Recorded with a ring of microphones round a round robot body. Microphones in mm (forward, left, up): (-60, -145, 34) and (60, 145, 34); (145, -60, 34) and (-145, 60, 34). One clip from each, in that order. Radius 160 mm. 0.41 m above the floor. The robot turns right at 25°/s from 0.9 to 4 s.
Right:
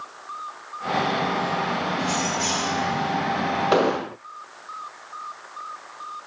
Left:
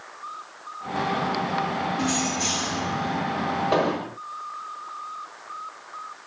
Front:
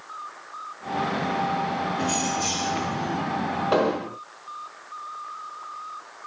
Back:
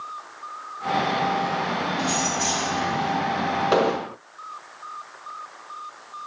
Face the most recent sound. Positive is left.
turn(degrees=-145)